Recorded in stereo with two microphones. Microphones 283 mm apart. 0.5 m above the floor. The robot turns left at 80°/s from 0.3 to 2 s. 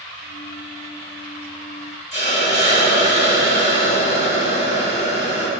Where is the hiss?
25° left (ahead or behind), 4 m.